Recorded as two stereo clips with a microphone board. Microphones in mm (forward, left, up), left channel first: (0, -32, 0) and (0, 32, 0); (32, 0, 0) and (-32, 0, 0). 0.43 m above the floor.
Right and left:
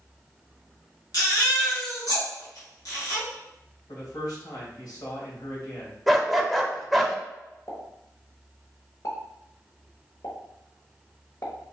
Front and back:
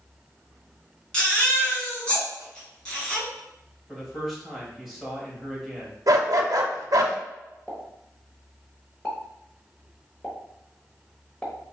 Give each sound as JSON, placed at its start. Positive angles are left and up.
{"t": 1.1, "sound": "a baby crying", "azimuth_deg": -75, "distance_m": 2.0}
{"t": 3.9, "sound": "a man speaking", "azimuth_deg": -95, "distance_m": 1.7}
{"t": 6.1, "sound": "a dog barking", "azimuth_deg": 180, "distance_m": 0.5}
{"t": 7.7, "sound": "a pop", "azimuth_deg": -75, "distance_m": 1.0}